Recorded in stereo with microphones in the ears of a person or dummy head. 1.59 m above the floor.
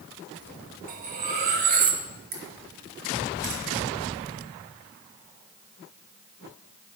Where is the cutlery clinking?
45° right (ahead or behind), 1.1 m.